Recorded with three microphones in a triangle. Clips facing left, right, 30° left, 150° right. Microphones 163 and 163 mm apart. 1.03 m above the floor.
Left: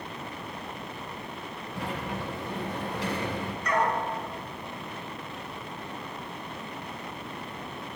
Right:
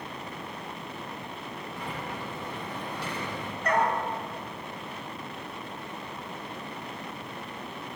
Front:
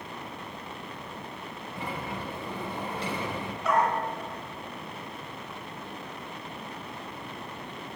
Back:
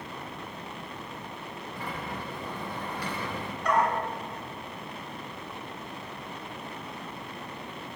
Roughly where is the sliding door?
Left.